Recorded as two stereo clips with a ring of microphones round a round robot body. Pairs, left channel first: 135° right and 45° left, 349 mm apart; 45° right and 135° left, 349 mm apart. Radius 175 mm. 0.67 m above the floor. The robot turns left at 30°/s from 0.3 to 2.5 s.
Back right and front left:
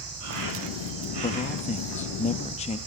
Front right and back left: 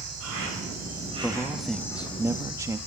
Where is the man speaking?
120° right, 0.5 m; by 2.8 s 160° right, 0.5 m.